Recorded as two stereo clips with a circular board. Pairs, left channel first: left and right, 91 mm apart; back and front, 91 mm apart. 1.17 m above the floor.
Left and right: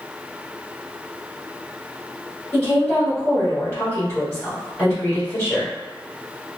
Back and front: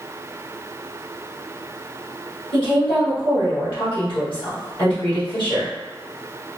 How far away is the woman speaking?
About 1.8 m.